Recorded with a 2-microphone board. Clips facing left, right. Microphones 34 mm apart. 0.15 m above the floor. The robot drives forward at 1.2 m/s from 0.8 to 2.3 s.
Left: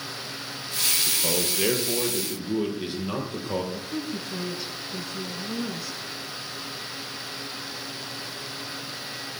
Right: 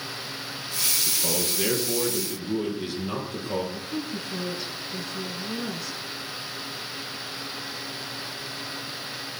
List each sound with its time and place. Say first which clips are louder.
1.1 s a man speaking: left 1 dB; 25° left (ahead or behind), 3 m; by 3.6 s 15° left (ahead or behind), 4 m
3.7 s a woman speaking: even; centre (ahead or behind), 1.4 m